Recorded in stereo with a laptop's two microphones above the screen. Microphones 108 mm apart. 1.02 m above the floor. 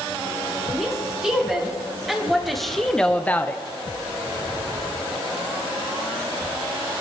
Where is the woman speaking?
5° right (ahead or behind), 3.5 m; by 3.6 s 20° left (ahead or behind), 0.8 m.